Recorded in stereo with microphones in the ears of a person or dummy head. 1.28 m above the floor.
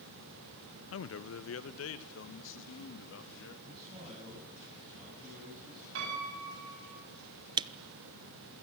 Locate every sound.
0.9 s a man speaking: 70° left (ahead or behind), 0.7 m; by 3.5 s 65° left (ahead or behind), 2.5 m
3.6 s a man speaking: 30° right (ahead or behind), 9.5 m
6.0 s a piano: 75° right (ahead or behind), 8.5 m
7.6 s a camera shutter: 20° right (ahead or behind), 0.6 m